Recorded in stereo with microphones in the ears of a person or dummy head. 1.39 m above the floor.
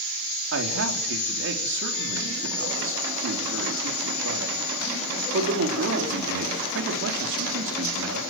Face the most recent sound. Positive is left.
turn(degrees=-70)  # may be behind; listen again after turning